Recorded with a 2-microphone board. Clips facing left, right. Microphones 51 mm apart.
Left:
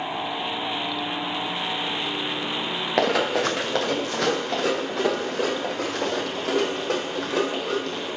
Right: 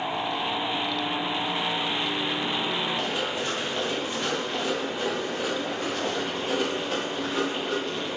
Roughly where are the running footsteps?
Left.